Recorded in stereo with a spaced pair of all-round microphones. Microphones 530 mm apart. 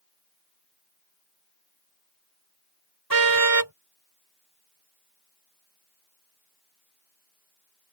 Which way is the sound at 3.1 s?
40° right (ahead or behind).